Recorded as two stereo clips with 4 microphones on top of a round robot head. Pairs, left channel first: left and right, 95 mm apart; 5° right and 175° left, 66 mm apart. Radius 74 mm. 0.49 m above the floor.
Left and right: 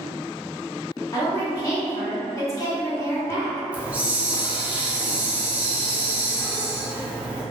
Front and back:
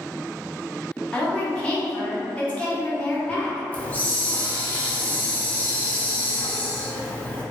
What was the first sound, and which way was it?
A woman speaking, 60° left.